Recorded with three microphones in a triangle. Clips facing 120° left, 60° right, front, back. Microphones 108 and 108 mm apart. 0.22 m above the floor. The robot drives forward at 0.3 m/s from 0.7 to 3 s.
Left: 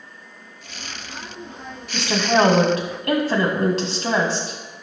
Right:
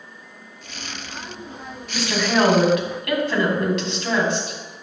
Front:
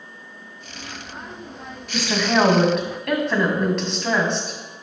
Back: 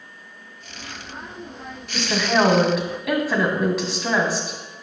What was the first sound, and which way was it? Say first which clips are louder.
A woman speaking: left 2 dB, front 1 dB; 70° left.